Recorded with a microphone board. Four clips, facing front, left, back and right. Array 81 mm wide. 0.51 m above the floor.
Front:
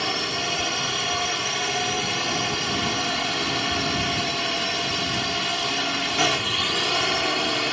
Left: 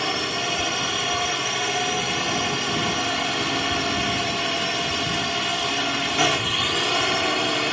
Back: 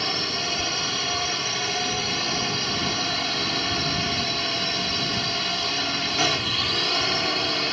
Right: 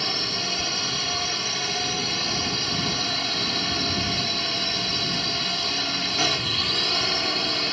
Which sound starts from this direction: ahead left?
A drone, at 0.0 s.